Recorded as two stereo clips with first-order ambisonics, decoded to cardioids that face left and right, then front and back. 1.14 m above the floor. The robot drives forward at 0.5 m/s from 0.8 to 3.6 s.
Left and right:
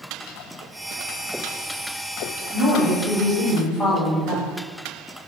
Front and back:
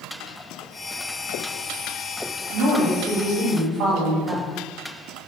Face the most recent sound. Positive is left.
turn(degrees=-170)